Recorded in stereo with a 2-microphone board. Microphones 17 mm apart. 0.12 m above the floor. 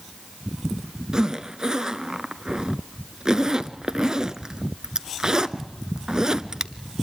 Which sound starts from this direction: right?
A zipper, at 1.1 s.